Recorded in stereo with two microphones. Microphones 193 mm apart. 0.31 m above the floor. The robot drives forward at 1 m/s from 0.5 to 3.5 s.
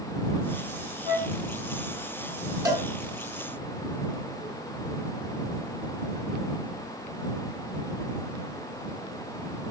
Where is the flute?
40° left (ahead or behind), 9 m; by 1.3 s 45° left (ahead or behind), 8.5 m.